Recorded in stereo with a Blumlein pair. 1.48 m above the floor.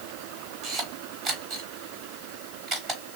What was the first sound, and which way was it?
A camera shutter, 25° right.